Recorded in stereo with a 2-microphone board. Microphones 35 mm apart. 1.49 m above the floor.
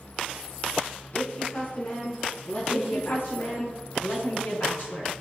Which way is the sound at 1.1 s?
55° left (ahead or behind).